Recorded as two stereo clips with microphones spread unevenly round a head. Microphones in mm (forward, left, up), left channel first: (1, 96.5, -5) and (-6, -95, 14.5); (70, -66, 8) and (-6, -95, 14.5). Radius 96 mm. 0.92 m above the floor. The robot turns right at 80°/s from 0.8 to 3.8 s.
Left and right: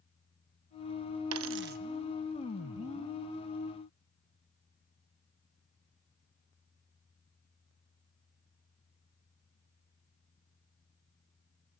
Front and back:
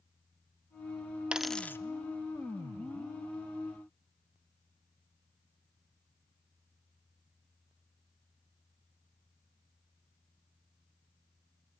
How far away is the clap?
No clap in this recording.